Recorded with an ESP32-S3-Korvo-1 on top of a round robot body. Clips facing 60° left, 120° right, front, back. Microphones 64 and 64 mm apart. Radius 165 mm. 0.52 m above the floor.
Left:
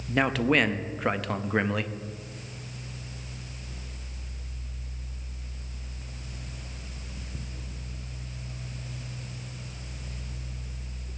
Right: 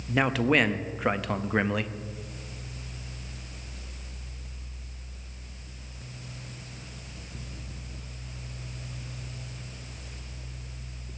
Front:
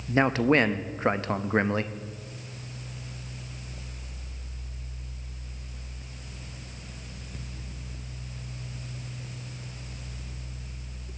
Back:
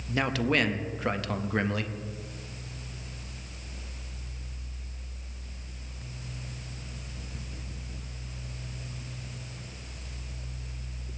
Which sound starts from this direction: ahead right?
A man speaking, at 0.1 s.